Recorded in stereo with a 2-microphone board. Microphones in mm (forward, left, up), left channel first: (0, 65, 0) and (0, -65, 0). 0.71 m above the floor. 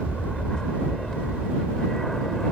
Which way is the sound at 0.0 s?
5° left (ahead or behind).